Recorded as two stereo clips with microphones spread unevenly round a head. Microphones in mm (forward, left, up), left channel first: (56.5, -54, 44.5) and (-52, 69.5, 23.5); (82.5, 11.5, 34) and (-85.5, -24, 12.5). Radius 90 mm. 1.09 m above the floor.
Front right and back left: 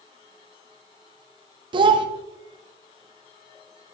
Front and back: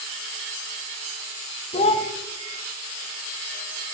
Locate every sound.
1.7 s a child speaking: 70° left, 0.6 m